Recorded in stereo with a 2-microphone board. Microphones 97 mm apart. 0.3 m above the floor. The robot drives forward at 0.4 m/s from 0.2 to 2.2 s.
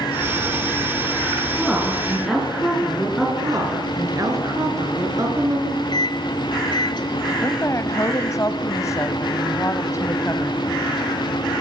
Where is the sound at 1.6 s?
Centre (ahead or behind), 5 m.